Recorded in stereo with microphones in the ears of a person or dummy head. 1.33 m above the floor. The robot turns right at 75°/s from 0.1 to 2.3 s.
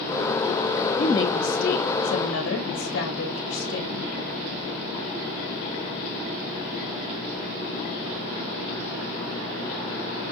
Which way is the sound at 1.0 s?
Straight ahead.